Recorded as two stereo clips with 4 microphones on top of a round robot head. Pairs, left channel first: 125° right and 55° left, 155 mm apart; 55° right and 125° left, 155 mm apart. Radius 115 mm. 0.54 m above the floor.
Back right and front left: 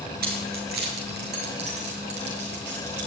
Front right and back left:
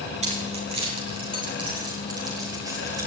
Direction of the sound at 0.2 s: 75° left.